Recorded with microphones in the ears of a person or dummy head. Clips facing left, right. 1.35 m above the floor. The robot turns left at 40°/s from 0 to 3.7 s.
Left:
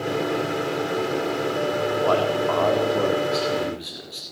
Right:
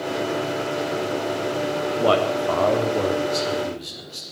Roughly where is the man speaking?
Behind right.